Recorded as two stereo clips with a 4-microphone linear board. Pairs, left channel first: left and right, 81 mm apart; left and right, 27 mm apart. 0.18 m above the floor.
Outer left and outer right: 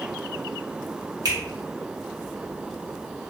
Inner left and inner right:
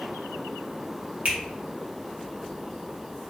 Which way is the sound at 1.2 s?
55° right (ahead or behind).